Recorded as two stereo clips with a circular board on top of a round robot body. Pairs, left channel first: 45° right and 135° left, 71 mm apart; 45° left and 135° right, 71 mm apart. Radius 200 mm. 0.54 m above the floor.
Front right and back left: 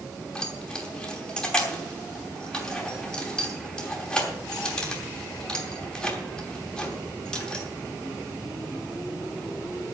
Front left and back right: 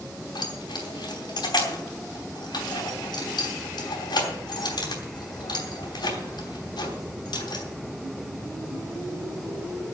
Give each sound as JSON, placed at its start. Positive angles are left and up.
{"t": 0.3, "sound": "keys jangling", "azimuth_deg": 35, "distance_m": 3.0}